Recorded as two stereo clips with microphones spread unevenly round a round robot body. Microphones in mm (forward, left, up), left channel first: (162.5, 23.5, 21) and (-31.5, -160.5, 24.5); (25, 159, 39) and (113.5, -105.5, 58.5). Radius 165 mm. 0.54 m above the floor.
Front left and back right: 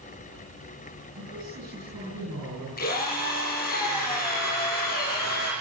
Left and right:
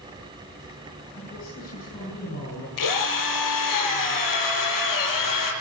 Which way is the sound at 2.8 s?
110° left.